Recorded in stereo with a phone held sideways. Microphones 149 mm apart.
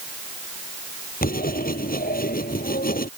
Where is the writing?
80° left.